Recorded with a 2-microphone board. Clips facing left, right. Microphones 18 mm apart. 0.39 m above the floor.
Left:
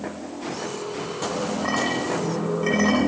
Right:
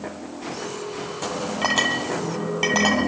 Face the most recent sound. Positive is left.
turn(degrees=-75)  # may be behind; listen again after turning